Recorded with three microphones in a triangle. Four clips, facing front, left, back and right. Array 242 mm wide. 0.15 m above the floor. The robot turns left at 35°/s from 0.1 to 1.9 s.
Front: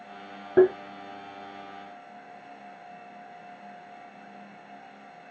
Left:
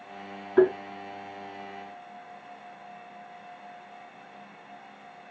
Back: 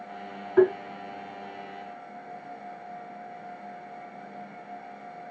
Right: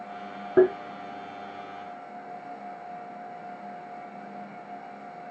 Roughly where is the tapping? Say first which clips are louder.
Right 1 dB, front 1 dB; ahead right.